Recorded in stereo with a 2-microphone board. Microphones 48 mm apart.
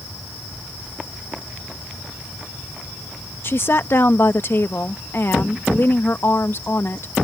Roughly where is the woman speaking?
Left.